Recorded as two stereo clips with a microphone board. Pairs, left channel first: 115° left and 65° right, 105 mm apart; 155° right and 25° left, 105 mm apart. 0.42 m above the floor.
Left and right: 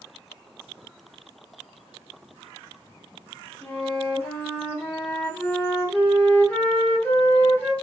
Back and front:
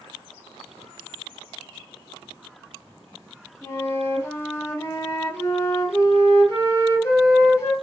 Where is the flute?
170° left, 0.9 m.